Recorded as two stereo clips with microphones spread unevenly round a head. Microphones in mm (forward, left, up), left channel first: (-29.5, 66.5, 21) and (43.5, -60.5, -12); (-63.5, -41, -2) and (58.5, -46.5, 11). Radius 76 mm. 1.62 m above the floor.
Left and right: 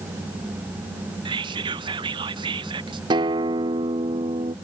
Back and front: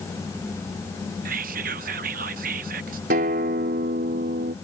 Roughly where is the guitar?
Ahead.